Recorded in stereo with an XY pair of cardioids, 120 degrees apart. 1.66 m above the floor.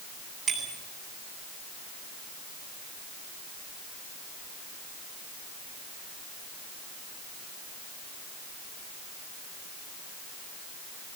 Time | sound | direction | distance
0.5 | a bicycle bell | 50° right | 9 m